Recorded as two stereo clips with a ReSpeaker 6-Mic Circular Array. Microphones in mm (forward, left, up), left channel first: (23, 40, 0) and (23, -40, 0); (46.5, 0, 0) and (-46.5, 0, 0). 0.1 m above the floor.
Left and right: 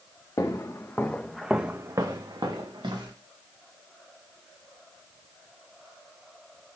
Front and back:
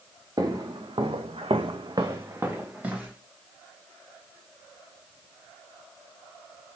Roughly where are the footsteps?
Behind left.